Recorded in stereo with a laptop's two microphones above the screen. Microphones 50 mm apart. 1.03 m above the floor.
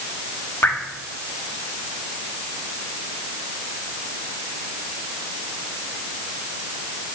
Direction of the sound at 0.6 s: 60° left (ahead or behind).